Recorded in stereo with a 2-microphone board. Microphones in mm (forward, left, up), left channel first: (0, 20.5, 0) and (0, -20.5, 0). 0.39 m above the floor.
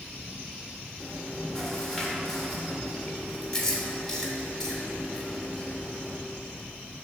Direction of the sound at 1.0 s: 10° left (ahead or behind).